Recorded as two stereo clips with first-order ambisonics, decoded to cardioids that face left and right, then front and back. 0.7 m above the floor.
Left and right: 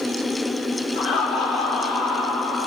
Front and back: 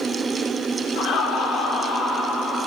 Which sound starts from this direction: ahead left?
Laughter, at 0.9 s.